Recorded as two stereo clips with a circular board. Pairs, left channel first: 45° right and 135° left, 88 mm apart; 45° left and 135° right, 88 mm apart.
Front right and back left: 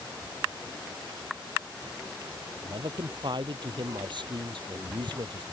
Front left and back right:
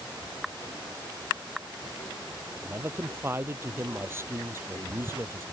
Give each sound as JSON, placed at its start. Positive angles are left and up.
{"t": 2.6, "sound": "a man speaking", "azimuth_deg": 160}